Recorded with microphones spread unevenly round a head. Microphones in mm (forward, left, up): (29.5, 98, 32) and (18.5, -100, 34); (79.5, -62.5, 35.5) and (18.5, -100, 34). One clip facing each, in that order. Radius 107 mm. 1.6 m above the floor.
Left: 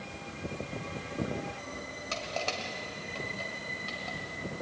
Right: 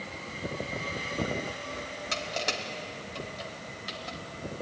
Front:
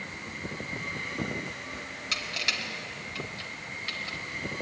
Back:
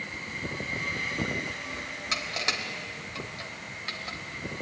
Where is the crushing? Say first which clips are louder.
Right 1 dB, back 2 dB; 150° right, 1.4 m.